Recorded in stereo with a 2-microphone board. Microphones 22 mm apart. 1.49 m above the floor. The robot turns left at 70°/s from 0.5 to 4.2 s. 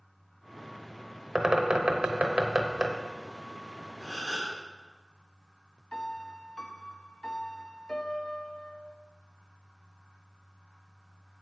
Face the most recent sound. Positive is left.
turn(degrees=45)  # may be behind; listen again after turning